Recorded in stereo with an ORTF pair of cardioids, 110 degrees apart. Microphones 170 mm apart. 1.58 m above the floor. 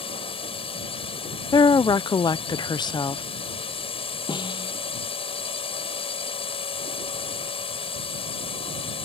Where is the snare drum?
30° left.